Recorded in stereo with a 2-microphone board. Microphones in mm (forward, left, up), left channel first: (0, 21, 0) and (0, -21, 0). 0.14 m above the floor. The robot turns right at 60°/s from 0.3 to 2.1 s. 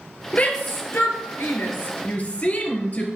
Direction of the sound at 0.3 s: 30° left (ahead or behind).